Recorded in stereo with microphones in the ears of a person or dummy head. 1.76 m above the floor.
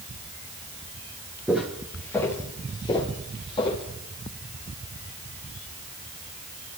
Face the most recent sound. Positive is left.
turn(degrees=30)  # may be behind; listen again after turning